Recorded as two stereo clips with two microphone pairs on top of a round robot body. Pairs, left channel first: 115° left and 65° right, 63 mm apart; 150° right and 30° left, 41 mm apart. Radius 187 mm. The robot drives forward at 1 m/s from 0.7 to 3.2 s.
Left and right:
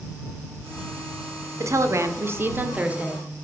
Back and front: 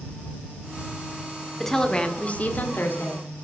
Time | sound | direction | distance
1.6 | a woman speaking | 65° right | 1.6 m